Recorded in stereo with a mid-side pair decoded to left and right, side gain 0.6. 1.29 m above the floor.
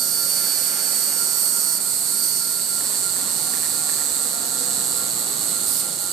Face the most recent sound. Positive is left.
turn(degrees=-65)